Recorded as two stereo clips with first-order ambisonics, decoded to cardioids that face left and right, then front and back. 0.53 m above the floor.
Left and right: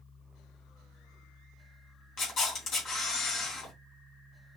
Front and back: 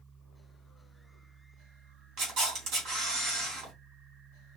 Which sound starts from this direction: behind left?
A camera shutter, at 2.2 s.